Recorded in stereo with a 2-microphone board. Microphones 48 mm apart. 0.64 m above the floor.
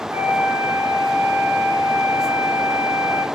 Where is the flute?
80° right, 0.6 m.